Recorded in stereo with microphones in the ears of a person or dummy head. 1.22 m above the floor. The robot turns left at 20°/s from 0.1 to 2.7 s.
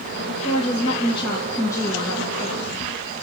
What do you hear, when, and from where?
0.4 s a woman speaking: 40° left, 1.7 m; by 2.7 s 5° right, 1.7 m